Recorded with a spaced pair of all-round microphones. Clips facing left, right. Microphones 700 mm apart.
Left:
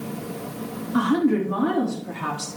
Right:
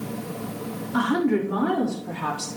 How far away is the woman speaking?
About 3 m.